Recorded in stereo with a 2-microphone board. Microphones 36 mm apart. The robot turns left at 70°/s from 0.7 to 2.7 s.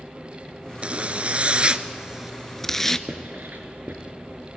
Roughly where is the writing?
Right.